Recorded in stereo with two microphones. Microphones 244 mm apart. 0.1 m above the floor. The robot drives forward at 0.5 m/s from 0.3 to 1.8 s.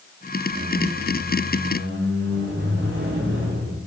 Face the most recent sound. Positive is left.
turn(degrees=-50)  # may be behind; listen again after turning